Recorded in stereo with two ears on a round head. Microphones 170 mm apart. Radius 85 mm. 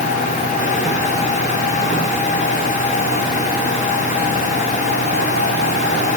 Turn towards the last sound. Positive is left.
No sound to turn to.